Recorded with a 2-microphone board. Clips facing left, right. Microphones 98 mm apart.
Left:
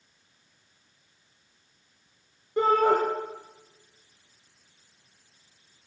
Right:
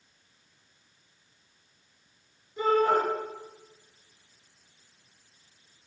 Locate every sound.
2.6 s a shout: 70° left (ahead or behind), 5 m